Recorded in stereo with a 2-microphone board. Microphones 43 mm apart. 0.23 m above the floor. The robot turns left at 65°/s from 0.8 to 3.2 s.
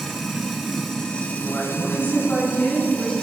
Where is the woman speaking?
165° left, 1.5 m; by 3.1 s 50° left, 1.5 m.